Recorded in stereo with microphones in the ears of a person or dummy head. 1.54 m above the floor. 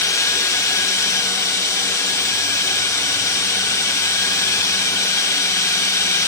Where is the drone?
15° left (ahead or behind).